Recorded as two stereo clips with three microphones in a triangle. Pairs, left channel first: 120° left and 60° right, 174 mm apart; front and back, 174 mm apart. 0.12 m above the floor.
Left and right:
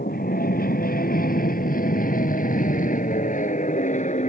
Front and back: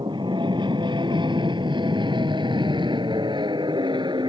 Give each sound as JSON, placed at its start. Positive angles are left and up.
{"t": 0.0, "sound": "an aircraft", "azimuth_deg": 120}